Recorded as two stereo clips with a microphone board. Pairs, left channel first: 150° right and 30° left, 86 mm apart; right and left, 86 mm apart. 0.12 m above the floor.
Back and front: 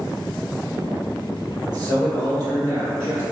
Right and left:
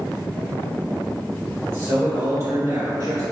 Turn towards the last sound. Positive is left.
turn(degrees=80)